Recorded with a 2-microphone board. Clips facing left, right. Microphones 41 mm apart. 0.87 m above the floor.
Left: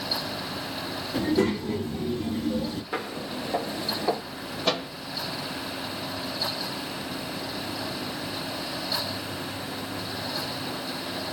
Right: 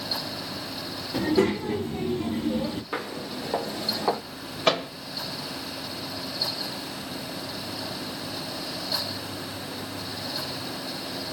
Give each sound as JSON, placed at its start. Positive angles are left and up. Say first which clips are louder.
{"t": 1.1, "sound": "a child speaking", "louder": "right 1 dB", "side_deg": -40, "distance_m": 1.6}
{"t": 2.9, "sound": "footsteps", "louder": "even", "side_deg": -15, "distance_m": 1.6}
{"t": 4.7, "sound": "a microwave", "louder": "right 4 dB", "side_deg": -50, "distance_m": 1.4}